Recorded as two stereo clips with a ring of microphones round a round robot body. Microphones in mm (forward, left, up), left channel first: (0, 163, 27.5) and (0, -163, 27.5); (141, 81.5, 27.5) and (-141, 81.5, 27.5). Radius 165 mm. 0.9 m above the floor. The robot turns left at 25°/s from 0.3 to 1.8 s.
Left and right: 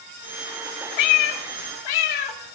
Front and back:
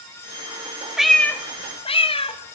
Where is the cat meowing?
90° left, 2 m; by 2.6 s 70° left, 2 m.